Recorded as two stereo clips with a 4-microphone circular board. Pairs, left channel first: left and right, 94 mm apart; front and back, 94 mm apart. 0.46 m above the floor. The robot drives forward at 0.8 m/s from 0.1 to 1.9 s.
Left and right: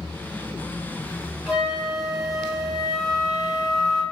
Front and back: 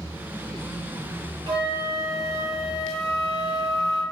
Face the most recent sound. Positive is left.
turn(degrees=180)